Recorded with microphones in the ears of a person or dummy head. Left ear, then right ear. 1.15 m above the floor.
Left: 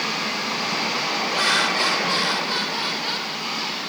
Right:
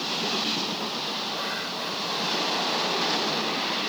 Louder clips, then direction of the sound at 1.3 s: Left 10 dB; 50° left (ahead or behind).